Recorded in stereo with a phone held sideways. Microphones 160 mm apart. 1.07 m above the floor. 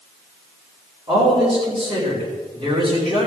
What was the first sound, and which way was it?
A man speaking, 35° right (ahead or behind).